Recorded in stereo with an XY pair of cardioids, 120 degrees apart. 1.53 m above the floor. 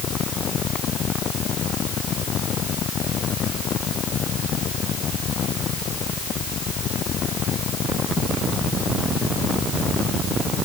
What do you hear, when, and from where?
Only background noise.